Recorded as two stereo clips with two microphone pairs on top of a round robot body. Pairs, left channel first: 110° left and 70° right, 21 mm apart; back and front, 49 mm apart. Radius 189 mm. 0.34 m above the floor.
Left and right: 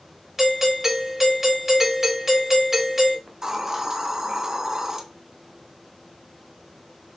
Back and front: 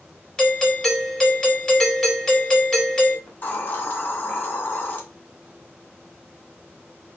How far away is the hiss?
About 0.8 m.